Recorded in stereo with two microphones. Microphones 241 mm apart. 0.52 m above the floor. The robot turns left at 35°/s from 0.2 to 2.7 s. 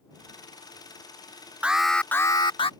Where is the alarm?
175° right; by 2.7 s 150° left.